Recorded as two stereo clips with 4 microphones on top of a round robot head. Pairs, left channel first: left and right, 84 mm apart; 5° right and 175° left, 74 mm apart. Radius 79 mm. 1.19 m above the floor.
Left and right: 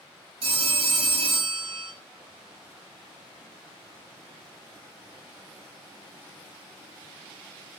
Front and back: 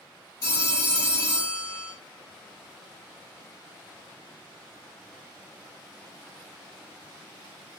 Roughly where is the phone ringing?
Ahead right.